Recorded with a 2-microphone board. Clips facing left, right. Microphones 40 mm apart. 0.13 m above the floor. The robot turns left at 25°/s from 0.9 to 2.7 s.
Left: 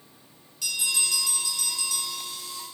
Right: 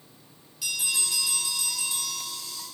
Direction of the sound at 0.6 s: 5° right.